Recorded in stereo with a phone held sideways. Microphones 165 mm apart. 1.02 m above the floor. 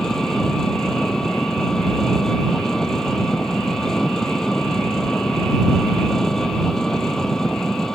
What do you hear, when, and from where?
0.0 s an engine running: 5° left (ahead or behind)